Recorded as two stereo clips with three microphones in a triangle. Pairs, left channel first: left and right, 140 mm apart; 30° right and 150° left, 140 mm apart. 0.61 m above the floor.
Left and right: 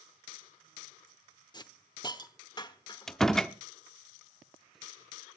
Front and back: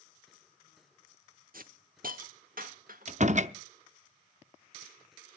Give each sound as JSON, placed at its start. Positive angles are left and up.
{"t": 1.5, "sound": "a hiss", "azimuth_deg": 150, "distance_m": 1.0}
{"t": 3.1, "sound": "a door slam", "azimuth_deg": 175, "distance_m": 0.6}